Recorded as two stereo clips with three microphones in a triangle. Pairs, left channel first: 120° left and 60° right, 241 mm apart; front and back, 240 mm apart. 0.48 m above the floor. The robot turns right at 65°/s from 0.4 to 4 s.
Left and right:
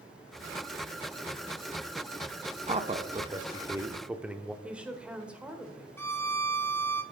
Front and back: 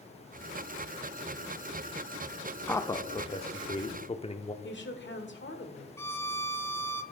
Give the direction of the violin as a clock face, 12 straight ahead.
10 o'clock.